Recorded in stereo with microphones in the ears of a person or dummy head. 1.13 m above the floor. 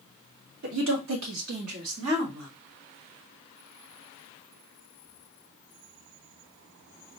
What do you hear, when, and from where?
0.6 s a woman speaking: 65° right (ahead or behind), 0.9 m; by 2.5 s 75° right (ahead or behind), 2.5 m